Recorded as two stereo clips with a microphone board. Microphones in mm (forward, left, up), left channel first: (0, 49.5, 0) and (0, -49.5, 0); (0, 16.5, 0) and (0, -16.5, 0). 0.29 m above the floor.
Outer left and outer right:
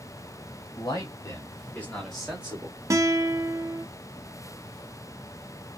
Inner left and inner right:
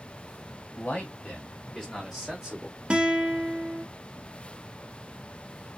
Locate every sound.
0.8 s a man speaking: 45° left (ahead or behind), 1.8 m; by 2.8 s 20° right (ahead or behind), 1.3 m
2.9 s a guitar: 35° right (ahead or behind), 0.6 m